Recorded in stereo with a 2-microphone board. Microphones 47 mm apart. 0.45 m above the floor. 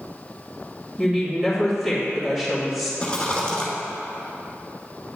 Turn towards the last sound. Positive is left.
turn(degrees=20)  # may be behind; listen again after turning